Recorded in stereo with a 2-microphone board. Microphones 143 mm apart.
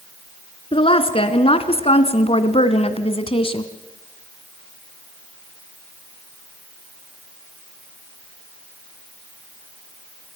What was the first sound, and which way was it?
A woman speaking, 40° left (ahead or behind).